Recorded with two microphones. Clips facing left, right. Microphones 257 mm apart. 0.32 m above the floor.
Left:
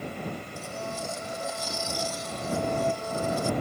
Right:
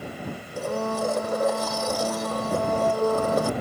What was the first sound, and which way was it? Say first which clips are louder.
A blender: right 10 dB; 70° right (ahead or behind).